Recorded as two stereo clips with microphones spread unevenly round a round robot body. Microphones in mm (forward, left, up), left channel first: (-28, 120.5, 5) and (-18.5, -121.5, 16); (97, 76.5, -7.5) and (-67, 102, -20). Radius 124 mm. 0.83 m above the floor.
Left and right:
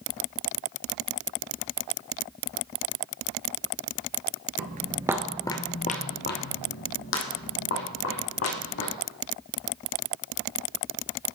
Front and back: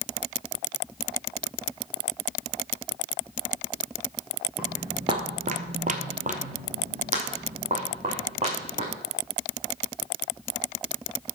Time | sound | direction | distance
4.6 | footsteps | 100° right | 1.0 m